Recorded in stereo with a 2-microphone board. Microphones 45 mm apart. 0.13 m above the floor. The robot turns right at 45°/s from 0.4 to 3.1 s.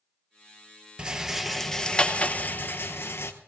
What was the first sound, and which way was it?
A rattle, 25° right.